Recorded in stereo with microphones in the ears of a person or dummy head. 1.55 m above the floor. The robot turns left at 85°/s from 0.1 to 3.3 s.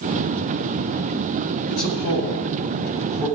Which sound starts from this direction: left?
A man speaking, at 1.7 s.